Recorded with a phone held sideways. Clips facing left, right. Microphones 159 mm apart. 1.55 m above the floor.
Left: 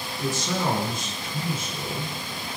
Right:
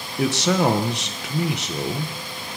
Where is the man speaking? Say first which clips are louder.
Right 8 dB; 90° right, 1.4 m.